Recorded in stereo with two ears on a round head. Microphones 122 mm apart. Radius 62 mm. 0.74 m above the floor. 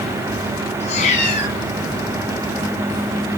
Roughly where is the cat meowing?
Left.